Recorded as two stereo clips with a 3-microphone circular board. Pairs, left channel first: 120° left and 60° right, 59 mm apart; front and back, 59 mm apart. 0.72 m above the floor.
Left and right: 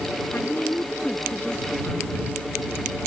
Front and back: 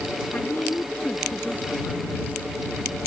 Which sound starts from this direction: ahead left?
A woman speaking, at 0.3 s.